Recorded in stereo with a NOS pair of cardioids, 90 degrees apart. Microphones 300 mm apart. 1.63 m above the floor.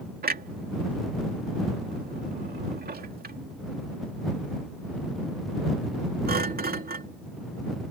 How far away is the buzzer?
I don't hear a buzzer.